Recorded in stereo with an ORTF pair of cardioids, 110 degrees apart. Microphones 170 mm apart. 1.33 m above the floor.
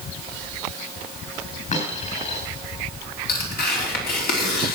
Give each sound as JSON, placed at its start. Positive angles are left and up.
{"t": 1.7, "sound": "a dropped coin", "azimuth_deg": 45, "distance_m": 8.0}
{"t": 3.3, "sound": "tearing paper", "azimuth_deg": 65, "distance_m": 3.5}